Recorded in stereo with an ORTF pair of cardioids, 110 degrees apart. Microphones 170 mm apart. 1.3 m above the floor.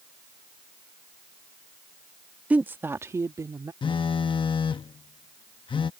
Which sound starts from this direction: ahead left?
A phone buzzing, at 3.8 s.